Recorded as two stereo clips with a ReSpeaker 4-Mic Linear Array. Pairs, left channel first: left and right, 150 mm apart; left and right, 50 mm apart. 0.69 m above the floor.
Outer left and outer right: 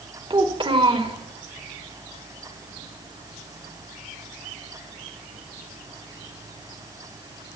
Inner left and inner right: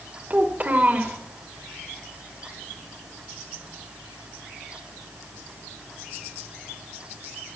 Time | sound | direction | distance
0.3 | a child speaking | 35° right (ahead or behind) | 1.5 m